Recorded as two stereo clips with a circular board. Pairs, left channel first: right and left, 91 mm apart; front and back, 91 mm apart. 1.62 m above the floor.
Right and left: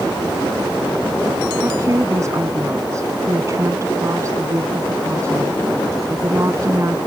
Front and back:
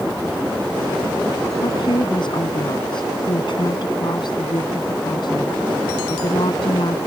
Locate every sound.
1.6 s a woman speaking: 35° left